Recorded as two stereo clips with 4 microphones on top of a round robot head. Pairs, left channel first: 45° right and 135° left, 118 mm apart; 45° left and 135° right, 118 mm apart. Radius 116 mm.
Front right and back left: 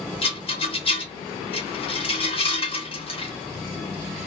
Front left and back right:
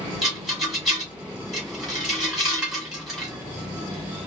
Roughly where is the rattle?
Ahead right.